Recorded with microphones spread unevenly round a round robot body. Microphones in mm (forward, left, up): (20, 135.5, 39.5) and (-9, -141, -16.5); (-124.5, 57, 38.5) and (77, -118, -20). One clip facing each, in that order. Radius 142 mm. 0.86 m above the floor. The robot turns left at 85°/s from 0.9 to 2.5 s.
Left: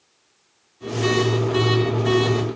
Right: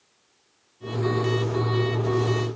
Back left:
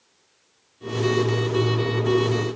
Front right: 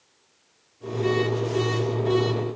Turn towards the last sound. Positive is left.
No sound to turn to.